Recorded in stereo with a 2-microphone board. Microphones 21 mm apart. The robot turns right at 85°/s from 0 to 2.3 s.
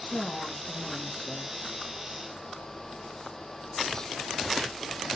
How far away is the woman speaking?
About 4 m.